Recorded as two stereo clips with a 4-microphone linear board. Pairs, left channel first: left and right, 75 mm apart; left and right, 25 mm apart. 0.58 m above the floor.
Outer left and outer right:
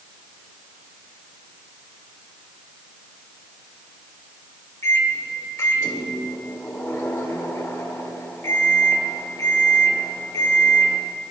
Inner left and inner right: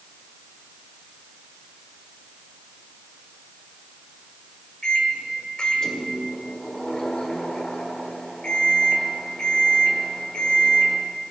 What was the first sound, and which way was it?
A microwave, 40° left (ahead or behind).